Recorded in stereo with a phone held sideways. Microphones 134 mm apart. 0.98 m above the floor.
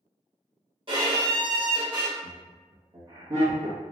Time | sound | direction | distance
0.9 | a violin | 40° right (ahead or behind) | 1.4 m
2.2 | laughter | 30° right (ahead or behind) | 1.3 m